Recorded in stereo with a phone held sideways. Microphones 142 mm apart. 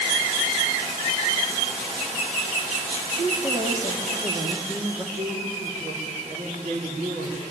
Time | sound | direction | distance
3.2 | a woman speaking | 30° right (ahead or behind) | 2.5 m
5.1 | a woman speaking | 85° right | 5 m